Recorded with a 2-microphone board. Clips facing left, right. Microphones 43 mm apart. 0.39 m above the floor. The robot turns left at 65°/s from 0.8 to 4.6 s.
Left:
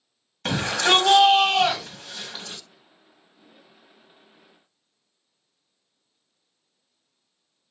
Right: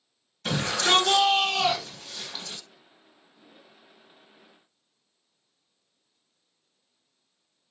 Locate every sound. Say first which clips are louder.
0.5 s a shout: left 3 dB; 120° left, 1.5 m; by 2.6 s 5° left, 1.5 m